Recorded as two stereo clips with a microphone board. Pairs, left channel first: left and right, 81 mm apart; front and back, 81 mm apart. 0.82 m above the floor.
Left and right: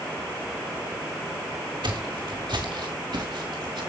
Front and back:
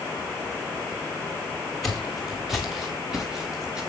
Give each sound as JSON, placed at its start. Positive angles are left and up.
{"t": 1.8, "sound": "footsteps", "azimuth_deg": -85, "distance_m": 3.0}